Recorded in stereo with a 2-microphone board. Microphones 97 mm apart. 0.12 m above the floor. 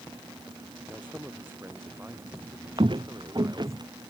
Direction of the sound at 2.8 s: 60° right (ahead or behind).